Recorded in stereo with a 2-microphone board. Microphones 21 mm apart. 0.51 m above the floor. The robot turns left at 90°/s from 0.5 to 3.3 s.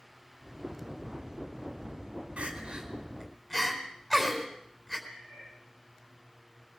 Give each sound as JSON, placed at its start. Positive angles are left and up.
{"t": 2.4, "sound": "crying", "side_deg": -75, "distance_m": 4.0}
{"t": 5.1, "sound": "a cat meowing", "side_deg": 85, "distance_m": 10.0}